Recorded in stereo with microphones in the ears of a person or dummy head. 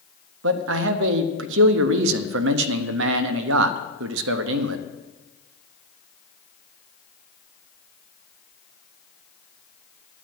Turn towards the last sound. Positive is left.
turn(degrees=-80)